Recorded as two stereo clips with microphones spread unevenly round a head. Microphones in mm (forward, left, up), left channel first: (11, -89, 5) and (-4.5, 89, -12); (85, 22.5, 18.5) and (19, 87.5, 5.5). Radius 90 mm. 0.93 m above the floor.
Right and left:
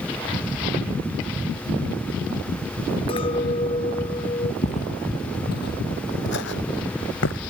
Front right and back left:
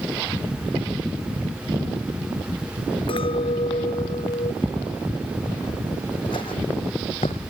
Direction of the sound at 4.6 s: 130° right.